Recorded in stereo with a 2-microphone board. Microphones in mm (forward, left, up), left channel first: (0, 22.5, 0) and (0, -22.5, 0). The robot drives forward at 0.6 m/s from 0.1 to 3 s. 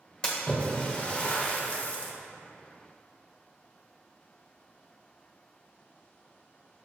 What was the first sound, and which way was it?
A splash, 20° left (ahead or behind).